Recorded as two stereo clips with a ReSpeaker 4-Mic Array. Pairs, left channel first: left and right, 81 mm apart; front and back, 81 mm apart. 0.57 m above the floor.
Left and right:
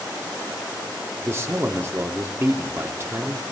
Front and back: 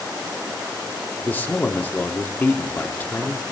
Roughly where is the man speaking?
Ahead right.